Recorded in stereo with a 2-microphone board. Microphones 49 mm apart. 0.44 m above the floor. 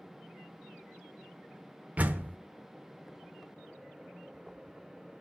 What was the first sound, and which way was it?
A door slam, 30° right (ahead or behind).